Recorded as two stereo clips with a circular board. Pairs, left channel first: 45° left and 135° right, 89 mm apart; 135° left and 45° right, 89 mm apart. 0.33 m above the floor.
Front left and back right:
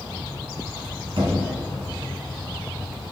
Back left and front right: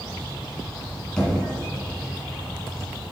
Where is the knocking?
145° right, 2 m.